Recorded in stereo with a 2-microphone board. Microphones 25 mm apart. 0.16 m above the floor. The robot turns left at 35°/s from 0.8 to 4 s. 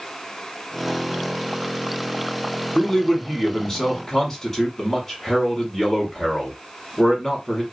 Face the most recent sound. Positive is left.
turn(degrees=20)  # may be behind; listen again after turning